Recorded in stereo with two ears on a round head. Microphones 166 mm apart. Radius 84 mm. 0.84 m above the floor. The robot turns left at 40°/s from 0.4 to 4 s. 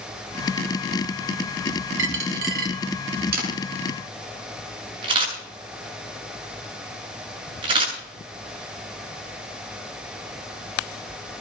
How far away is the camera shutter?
About 7.5 m.